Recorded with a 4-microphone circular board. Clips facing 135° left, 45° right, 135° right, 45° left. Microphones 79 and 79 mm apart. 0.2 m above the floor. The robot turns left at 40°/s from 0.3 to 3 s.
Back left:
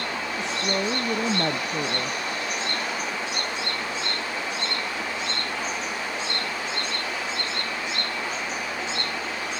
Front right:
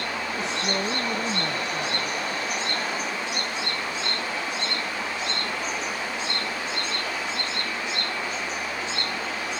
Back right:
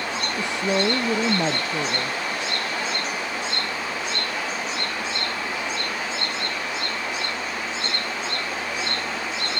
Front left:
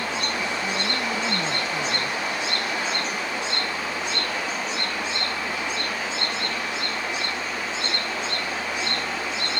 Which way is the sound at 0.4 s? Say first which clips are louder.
Back left 2 dB, back right 4 dB; 130° right.